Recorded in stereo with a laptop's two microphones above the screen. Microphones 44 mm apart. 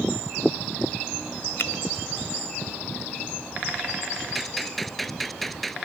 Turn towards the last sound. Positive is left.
turn(degrees=0)  # may be behind; listen again after turning